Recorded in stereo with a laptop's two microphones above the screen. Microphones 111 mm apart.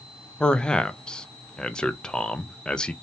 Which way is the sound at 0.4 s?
10° left (ahead or behind).